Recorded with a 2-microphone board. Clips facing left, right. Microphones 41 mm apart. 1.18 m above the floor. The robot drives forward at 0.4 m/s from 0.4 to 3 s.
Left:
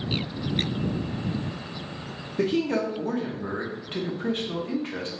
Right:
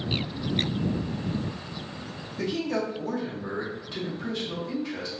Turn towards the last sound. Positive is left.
turn(degrees=40)  # may be behind; listen again after turning